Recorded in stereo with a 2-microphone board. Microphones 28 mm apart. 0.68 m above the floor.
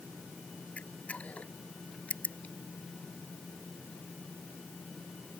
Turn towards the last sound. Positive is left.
turn(degrees=55)  # may be behind; listen again after turning